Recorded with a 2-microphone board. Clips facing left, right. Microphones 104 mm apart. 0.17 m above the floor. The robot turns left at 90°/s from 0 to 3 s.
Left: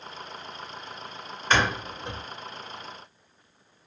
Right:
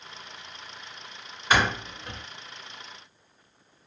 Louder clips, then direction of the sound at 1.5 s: Even; 10° right (ahead or behind).